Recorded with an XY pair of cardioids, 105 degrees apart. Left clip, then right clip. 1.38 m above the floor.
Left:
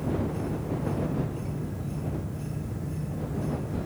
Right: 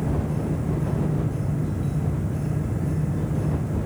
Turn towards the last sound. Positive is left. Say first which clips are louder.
# right 2 dB
turn(degrees=-50)